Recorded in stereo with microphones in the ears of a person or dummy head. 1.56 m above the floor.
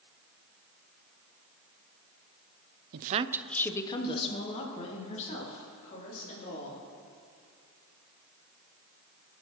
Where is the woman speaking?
60° right (ahead or behind), 0.6 m; by 6.8 s 45° left (ahead or behind), 4.5 m.